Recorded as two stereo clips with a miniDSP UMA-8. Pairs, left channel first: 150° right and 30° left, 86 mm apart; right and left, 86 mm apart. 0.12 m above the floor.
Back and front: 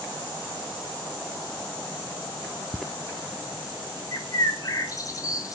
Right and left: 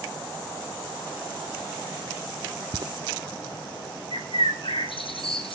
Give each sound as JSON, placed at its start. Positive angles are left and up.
{"t": 2.7, "sound": "footsteps", "azimuth_deg": 125, "distance_m": 0.6}
{"t": 4.1, "sound": "a bird", "azimuth_deg": -100, "distance_m": 1.6}